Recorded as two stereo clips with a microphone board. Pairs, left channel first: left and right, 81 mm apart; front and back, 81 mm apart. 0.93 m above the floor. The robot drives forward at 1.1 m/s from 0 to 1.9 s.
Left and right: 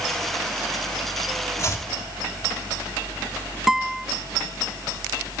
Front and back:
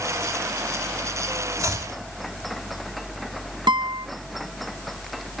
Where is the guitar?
175° right, 0.8 m.